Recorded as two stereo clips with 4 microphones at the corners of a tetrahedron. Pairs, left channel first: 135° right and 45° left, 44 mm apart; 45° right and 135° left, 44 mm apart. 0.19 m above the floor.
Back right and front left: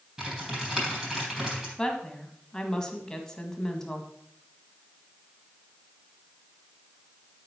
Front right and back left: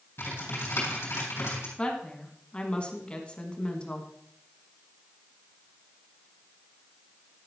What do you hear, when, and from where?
0.2 s typing on a keyboard: 35° right, 3.5 m
1.8 s a woman speaking: 75° right, 1.5 m